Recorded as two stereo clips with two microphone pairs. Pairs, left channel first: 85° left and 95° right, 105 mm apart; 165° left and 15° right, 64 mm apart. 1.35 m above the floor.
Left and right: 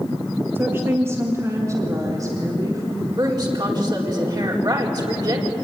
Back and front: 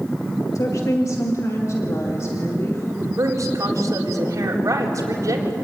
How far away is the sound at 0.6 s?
About 1.7 m.